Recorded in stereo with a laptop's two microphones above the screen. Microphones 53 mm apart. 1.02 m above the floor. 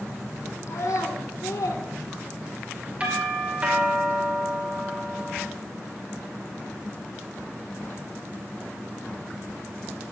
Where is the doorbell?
25° right (ahead or behind), 5.5 m.